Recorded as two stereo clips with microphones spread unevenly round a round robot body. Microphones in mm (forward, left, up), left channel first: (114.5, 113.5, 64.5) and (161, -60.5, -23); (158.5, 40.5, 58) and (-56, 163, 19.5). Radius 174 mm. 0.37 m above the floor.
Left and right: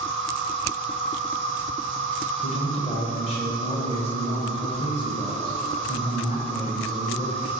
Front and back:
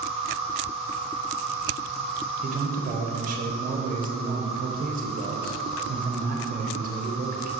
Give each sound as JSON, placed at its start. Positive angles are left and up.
{"t": 0.0, "sound": "an insect", "azimuth_deg": -85, "distance_m": 1.4}
{"t": 2.4, "sound": "a man speaking", "azimuth_deg": -175, "distance_m": 1.3}